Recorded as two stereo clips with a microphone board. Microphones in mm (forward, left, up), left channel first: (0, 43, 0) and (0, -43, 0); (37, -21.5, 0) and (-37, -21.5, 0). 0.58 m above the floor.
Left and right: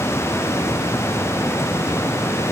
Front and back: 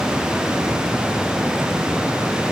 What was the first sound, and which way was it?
Only background noise.